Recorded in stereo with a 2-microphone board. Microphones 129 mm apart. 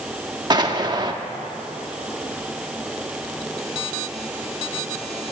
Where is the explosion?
35° right (ahead or behind), 0.5 m.